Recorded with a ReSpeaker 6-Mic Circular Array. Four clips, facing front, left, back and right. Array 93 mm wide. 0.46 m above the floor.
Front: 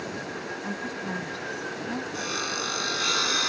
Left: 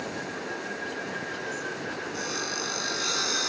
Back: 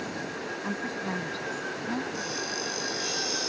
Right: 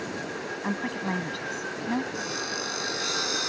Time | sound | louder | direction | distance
0.6 | a woman speaking | right 4 dB, back 2 dB | 100° right | ?
2.1 | sawing | even, front 2 dB | straight ahead | ?